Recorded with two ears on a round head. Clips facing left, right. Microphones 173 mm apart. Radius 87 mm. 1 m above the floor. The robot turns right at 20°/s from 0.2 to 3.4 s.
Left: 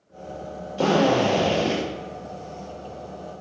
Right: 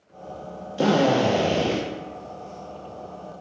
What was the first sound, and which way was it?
A drill, 15° right (ahead or behind).